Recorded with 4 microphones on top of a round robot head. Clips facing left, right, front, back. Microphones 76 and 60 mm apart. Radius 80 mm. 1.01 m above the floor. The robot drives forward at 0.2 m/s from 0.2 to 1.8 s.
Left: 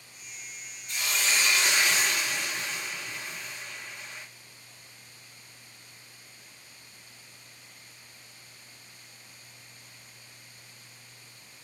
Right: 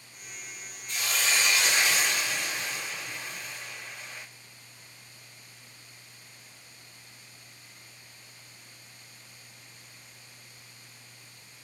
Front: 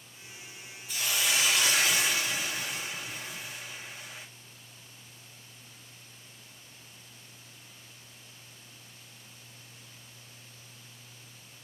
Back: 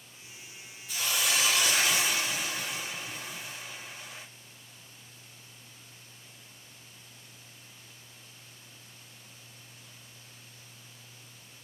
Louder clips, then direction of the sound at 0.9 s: Even, even; 155° right.